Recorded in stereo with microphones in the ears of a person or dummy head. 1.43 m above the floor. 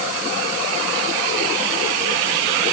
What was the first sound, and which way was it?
Only background noise.